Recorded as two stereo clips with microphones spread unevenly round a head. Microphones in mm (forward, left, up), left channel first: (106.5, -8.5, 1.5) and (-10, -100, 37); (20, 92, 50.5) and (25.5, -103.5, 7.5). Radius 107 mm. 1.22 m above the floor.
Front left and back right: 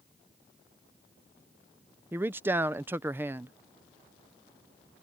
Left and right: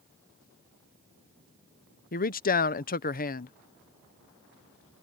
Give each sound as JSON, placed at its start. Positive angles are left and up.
{"t": 2.1, "sound": "a man speaking", "azimuth_deg": 130}